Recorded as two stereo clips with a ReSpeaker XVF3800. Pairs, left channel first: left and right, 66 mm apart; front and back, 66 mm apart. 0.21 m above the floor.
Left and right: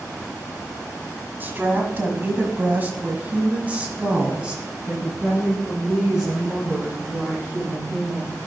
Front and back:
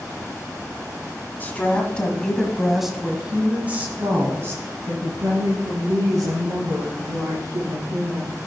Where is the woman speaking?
50° right, 1.5 m; by 8.4 s straight behind, 3.5 m.